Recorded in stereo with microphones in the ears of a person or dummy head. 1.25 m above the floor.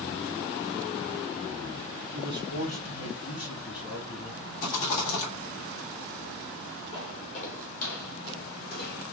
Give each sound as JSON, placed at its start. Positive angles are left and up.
{"t": 2.1, "sound": "a man speaking", "side_deg": 60, "distance_m": 1.3}
{"t": 4.6, "sound": "a rattle", "side_deg": 40, "distance_m": 2.5}
{"t": 6.9, "sound": "footsteps", "side_deg": 35, "distance_m": 1.8}